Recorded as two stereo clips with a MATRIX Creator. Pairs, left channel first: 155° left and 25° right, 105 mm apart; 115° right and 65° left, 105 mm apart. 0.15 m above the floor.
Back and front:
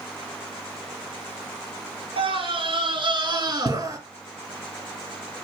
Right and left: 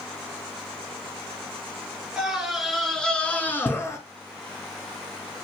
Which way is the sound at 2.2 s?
15° right.